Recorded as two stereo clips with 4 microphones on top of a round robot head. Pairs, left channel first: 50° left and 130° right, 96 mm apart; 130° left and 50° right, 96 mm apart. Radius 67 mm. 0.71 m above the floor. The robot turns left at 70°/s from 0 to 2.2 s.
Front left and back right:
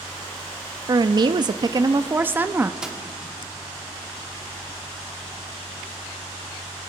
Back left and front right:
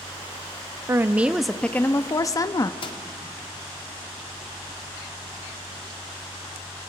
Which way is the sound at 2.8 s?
150° left.